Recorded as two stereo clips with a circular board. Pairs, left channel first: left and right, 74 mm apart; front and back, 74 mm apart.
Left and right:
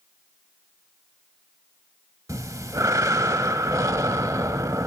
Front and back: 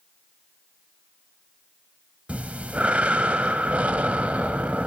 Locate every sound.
2.3 s breathing: 110° right, 0.8 m